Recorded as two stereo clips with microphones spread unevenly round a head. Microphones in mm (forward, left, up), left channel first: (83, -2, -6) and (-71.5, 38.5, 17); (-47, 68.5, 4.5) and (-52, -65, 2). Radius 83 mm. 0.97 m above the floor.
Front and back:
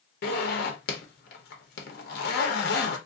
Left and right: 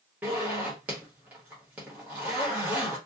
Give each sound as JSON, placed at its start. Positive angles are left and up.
{"t": 0.2, "sound": "a zipper", "azimuth_deg": -10, "distance_m": 0.9}